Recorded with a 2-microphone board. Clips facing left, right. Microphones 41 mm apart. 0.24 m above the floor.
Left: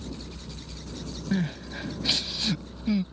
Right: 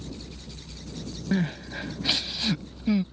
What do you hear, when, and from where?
0.0 s a helicopter: 35° left (ahead or behind)
1.3 s crying: 15° right (ahead or behind)